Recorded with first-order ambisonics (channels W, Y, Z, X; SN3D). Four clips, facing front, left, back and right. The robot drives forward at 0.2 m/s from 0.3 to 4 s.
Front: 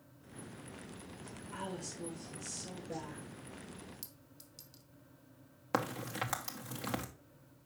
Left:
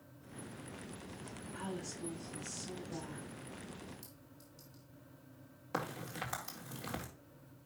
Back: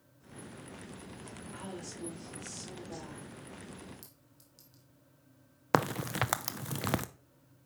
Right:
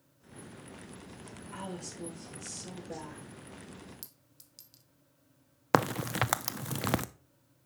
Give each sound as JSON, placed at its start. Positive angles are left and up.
{"t": 1.5, "sound": "a woman speaking", "azimuth_deg": -60, "distance_m": 6.0}
{"t": 4.0, "sound": "a clink", "azimuth_deg": -70, "distance_m": 1.0}
{"t": 5.7, "sound": "a crack", "azimuth_deg": -120, "distance_m": 0.5}